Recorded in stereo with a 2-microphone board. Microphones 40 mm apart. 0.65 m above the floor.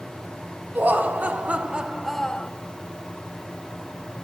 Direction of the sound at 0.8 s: 50° right (ahead or behind).